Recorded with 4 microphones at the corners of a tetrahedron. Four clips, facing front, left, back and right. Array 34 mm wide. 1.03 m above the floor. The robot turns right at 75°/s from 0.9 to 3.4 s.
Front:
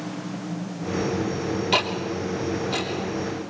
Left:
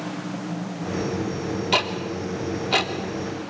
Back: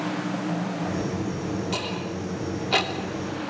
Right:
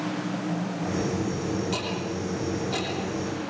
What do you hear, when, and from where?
1.7 s ticking: 50° left, 3 m; by 2.9 s 135° left, 3 m